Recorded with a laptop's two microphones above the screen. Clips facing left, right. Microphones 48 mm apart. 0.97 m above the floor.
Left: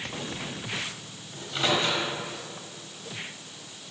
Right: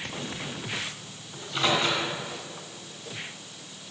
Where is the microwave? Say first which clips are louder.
Right 1 dB; 5° left (ahead or behind), 3.5 m.